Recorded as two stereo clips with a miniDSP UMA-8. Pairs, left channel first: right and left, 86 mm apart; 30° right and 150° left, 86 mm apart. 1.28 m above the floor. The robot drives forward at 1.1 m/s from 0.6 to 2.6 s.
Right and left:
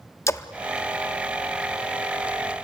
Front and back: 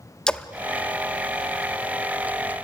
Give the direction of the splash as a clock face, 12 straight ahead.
3 o'clock.